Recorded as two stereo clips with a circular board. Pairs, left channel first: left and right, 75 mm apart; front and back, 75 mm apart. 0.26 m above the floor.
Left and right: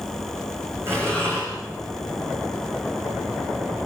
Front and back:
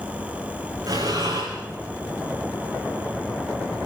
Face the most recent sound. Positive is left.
turn(degrees=-145)